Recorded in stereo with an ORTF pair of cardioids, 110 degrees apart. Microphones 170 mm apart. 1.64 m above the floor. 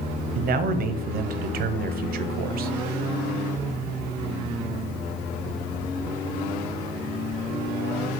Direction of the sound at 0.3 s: 55° right.